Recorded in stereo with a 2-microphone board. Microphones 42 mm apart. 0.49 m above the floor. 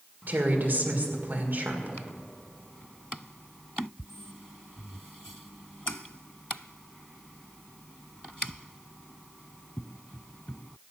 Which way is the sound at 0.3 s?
50° right (ahead or behind).